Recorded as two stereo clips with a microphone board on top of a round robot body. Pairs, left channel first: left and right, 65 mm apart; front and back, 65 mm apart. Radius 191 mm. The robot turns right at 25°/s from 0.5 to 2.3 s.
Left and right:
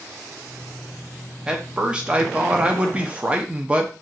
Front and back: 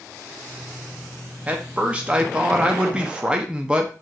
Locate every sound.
1.5 s a man speaking: 150° right, 0.7 m; by 3.9 s 130° right, 0.7 m